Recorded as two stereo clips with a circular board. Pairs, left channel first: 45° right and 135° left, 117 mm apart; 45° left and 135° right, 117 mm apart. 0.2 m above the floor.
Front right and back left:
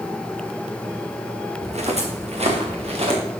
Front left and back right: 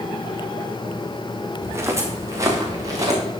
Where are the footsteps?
160° left, 4 m; by 3.2 s 165° left, 6.5 m.